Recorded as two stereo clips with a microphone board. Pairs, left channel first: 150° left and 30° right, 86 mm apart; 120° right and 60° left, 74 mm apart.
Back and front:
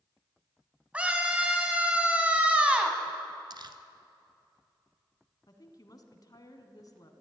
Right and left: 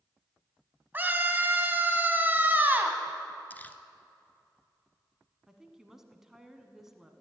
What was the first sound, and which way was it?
A scream, 30° left.